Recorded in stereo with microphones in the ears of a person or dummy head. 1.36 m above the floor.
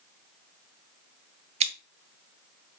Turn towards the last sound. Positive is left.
turn(degrees=-30)  # may be behind; listen again after turning